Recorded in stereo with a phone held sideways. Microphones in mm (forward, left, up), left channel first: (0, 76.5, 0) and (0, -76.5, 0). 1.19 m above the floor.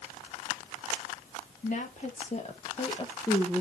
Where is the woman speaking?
55° left (ahead or behind), 2.5 m; by 3.6 s 5° left (ahead or behind), 1.0 m.